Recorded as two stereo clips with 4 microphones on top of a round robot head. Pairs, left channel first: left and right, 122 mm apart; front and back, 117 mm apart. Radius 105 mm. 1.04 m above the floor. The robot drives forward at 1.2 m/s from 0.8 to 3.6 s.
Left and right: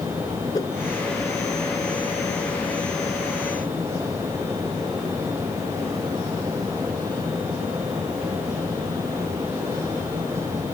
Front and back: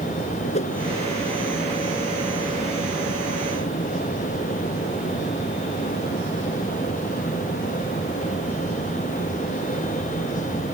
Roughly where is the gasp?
I don't hear a gasp.